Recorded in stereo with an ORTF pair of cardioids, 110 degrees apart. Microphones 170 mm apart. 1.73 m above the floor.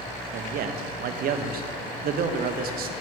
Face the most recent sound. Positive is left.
turn(degrees=-65)